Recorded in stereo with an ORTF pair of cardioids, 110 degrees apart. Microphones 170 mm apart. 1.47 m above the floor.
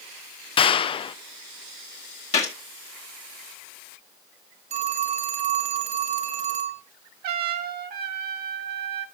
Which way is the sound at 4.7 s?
45° right.